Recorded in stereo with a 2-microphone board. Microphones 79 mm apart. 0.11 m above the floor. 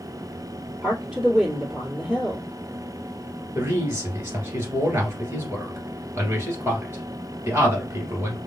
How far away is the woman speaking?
About 2.0 m.